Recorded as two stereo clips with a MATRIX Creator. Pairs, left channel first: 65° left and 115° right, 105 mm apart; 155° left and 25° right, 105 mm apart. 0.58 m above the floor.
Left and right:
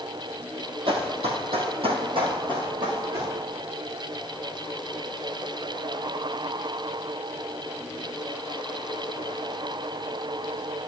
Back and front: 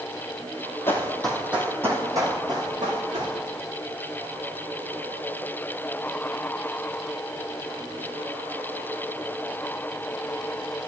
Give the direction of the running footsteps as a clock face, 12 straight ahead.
5 o'clock.